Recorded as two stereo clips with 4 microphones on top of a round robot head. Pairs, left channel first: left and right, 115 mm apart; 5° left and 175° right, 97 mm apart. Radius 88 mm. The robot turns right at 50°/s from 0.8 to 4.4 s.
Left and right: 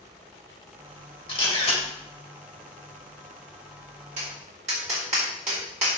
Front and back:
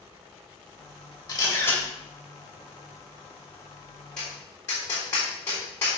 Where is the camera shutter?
50° left, 3 m; by 1.8 s 75° left, 3 m.